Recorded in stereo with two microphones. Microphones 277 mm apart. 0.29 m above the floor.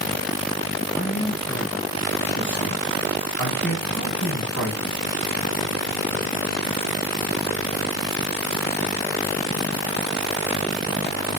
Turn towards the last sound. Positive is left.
turn(degrees=40)  # may be behind; listen again after turning